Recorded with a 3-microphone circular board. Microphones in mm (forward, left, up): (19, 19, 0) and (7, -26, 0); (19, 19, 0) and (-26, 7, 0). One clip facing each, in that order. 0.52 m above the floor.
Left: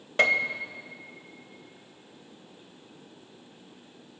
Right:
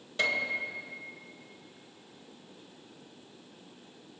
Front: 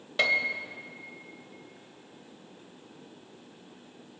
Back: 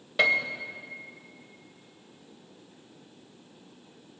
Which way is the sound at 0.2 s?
110° left.